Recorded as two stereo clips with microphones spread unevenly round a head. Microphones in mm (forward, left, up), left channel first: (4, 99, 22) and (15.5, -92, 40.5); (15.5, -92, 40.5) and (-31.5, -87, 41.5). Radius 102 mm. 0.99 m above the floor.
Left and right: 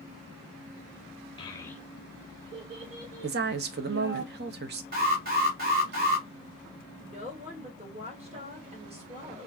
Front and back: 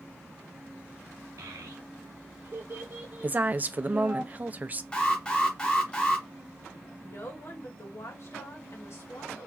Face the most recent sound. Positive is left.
turn(degrees=-25)